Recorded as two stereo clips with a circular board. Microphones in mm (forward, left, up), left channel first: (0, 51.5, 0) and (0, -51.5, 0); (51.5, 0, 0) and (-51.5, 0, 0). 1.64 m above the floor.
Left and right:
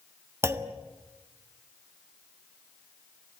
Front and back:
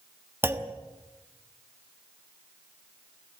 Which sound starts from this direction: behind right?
A clunk, at 0.4 s.